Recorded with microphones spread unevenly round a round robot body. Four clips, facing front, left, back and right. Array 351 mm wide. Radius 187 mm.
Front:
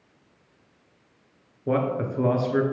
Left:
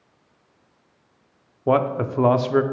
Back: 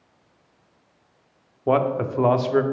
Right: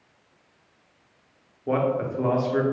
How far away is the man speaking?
About 0.8 m.